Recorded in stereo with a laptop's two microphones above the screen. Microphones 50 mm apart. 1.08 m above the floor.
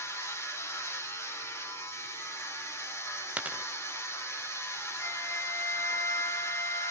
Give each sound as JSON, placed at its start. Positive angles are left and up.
{"t": 0.0, "sound": "a machine running", "side_deg": 75, "distance_m": 3.0}
{"t": 3.4, "sound": "a dropped coin", "side_deg": -30, "distance_m": 0.7}
{"t": 5.0, "sound": "a flute", "side_deg": 65, "distance_m": 3.5}